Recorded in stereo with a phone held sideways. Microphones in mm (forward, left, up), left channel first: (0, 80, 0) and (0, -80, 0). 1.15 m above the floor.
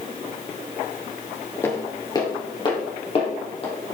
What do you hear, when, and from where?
1.6 s footsteps: 15° left (ahead or behind), 1.6 m; by 3.7 s 40° left (ahead or behind), 3 m